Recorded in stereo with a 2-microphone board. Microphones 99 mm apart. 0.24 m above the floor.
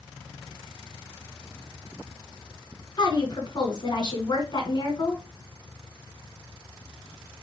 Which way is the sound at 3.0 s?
40° left (ahead or behind).